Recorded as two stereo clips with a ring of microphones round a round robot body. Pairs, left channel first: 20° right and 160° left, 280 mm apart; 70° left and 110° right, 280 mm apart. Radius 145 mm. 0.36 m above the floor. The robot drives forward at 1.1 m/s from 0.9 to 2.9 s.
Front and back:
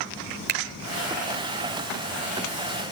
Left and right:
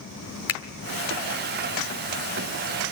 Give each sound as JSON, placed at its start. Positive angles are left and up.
{"t": 0.5, "sound": "a finger snap", "azimuth_deg": 110, "distance_m": 1.4}